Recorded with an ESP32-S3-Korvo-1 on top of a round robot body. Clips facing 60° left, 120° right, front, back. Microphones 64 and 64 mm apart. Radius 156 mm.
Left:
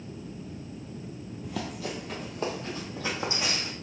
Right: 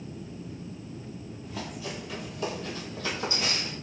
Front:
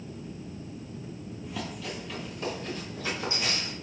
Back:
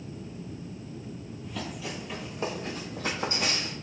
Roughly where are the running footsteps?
Left.